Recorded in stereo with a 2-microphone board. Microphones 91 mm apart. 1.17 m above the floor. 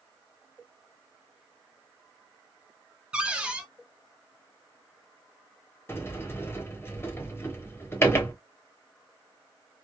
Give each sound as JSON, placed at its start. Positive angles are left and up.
{"t": 3.1, "sound": "a cupboard door", "side_deg": -10, "distance_m": 0.7}
{"t": 5.9, "sound": "a sliding door", "side_deg": 25, "distance_m": 1.1}